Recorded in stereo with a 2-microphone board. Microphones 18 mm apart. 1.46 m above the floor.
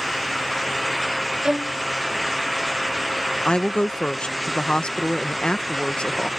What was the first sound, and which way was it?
A violin, 35° right (ahead or behind).